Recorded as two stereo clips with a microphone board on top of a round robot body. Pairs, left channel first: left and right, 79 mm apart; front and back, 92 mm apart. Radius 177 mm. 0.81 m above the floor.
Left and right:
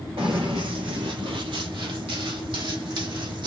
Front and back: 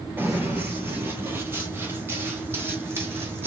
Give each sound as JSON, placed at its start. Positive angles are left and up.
{"t": 0.2, "sound": "running footsteps", "azimuth_deg": -115, "distance_m": 0.8}